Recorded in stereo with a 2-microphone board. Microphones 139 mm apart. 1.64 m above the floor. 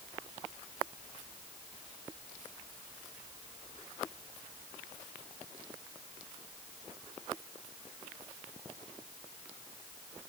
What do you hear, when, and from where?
Only background noise.